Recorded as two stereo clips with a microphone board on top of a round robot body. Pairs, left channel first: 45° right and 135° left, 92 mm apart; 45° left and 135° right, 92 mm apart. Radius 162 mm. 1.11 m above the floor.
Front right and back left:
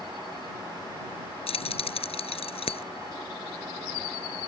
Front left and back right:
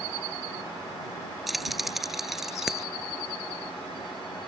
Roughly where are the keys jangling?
Ahead right.